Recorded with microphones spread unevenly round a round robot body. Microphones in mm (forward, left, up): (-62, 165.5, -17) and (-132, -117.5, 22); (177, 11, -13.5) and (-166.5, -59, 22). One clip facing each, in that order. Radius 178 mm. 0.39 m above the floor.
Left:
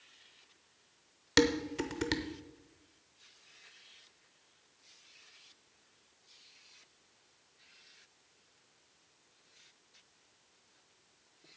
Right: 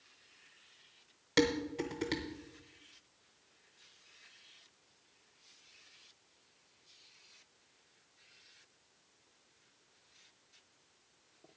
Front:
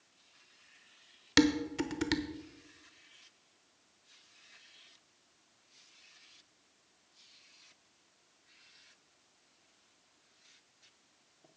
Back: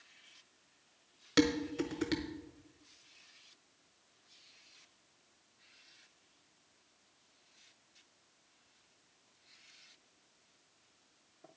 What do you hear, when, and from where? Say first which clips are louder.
1.4 s dishes clattering: left 2 dB, front 2 dB; 50° left, 0.7 m